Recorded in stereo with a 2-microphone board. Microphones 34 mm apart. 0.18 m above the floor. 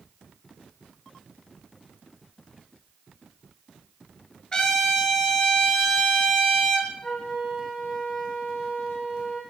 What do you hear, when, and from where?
4.5 s a trumpet: 25° left (ahead or behind), 2.5 m
7.0 s a flute: 30° left (ahead or behind), 5 m